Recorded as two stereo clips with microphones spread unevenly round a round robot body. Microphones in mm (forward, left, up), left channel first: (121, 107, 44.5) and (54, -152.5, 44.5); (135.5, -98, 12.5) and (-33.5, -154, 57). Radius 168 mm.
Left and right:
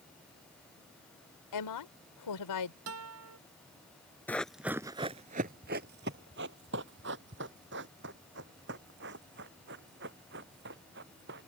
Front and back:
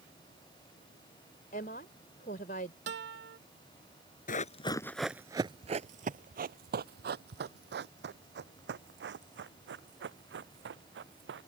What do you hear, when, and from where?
1.5 s a woman speaking: 85° left
2.9 s a guitar: 155° right
4.3 s running footsteps: 5° right; by 11.5 s 165° right